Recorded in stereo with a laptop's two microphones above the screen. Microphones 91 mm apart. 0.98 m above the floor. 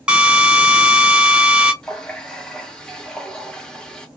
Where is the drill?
10° right (ahead or behind), 0.8 m.